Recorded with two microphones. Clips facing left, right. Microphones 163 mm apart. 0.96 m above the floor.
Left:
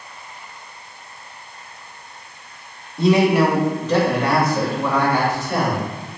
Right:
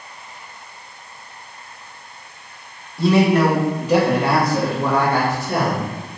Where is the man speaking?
20° left (ahead or behind), 0.9 m; by 5.8 s 60° right (ahead or behind), 1.4 m.